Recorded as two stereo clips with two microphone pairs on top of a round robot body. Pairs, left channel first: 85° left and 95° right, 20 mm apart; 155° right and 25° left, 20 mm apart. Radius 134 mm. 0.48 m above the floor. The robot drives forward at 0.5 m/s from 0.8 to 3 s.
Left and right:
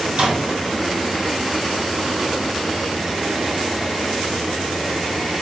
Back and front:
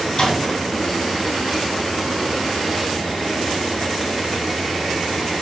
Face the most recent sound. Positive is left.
turn(degrees=-115)